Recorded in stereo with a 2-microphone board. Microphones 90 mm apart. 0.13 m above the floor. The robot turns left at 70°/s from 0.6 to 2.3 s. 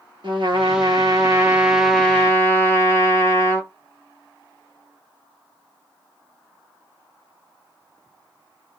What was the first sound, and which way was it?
A trumpet, 95° right.